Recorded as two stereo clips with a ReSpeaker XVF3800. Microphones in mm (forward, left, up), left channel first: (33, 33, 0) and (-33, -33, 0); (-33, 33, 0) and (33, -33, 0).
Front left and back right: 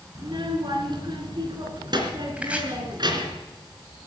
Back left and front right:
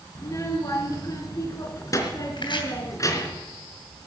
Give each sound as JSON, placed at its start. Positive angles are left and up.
{"t": 0.1, "sound": "a child speaking", "azimuth_deg": -170, "distance_m": 3.5}
{"t": 2.4, "sound": "chopping", "azimuth_deg": 150, "distance_m": 2.5}